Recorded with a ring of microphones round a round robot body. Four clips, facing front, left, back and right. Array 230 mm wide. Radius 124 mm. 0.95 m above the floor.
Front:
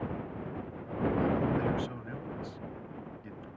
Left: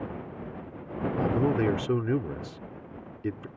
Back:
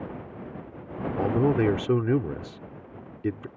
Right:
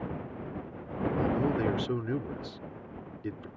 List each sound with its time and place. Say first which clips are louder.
1.2 s a man speaking: left 4 dB, back 9 dB; 165° left